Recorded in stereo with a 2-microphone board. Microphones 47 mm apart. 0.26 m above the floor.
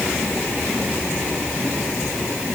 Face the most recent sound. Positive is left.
No sound to turn to.